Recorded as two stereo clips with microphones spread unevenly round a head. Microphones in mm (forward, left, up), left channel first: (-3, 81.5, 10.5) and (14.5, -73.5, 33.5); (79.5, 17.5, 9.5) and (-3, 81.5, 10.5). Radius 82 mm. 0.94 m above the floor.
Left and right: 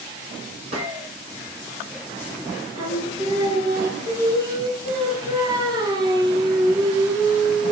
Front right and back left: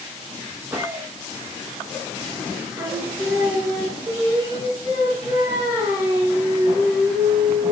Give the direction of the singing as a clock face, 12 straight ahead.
5 o'clock.